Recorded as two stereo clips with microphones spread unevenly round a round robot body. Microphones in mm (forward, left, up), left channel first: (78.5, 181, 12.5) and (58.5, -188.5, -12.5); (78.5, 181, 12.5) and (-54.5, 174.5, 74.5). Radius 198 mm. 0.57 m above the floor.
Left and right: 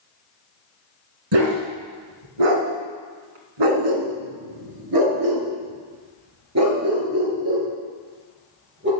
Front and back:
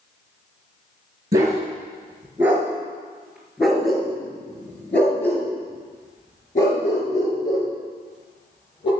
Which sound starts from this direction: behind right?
A dog barking, at 1.3 s.